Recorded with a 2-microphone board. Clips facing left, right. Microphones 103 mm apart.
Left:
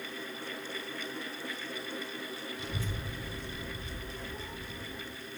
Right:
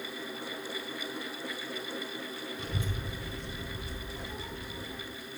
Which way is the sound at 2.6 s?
50° right (ahead or behind).